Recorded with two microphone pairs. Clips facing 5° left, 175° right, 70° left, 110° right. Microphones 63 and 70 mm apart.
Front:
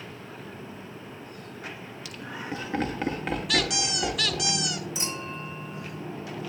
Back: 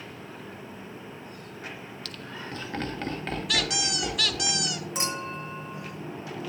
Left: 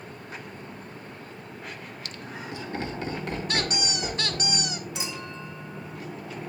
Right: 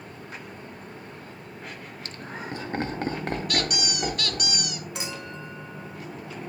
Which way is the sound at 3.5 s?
100° left.